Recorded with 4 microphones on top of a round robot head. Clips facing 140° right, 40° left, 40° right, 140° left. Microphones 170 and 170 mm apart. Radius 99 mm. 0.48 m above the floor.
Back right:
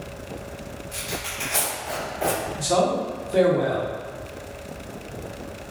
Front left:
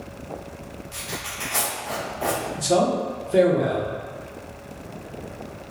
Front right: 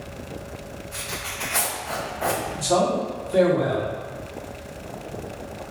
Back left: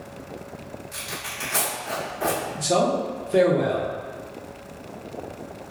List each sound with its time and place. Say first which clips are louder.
0.9 s tearing paper: back right 2 dB, front right 2 dB; 150° left, 1.8 m
2.6 s a man speaking: front left 2 dB, even; 90° left, 0.9 m